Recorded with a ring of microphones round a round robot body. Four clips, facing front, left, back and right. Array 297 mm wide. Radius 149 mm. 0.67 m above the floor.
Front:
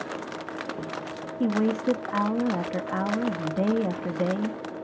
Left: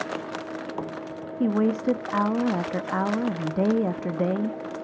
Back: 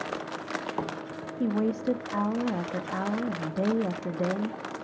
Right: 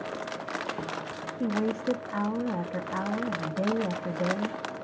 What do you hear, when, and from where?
1.4 s a woman speaking: 75° left, 0.6 m